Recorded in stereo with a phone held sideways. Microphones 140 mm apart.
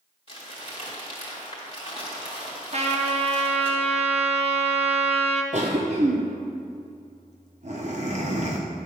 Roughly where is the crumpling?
Left.